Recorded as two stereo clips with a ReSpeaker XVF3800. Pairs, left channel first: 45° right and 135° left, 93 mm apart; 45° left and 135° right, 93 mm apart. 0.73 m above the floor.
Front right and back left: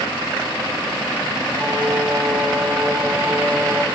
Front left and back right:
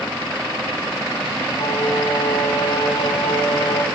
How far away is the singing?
About 5.5 m.